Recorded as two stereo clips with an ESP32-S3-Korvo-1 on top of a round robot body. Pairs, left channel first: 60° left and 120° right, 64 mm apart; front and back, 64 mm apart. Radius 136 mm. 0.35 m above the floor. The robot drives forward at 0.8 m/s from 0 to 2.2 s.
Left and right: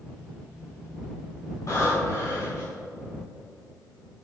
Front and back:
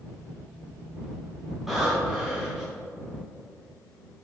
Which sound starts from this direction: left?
Breathing, at 1.7 s.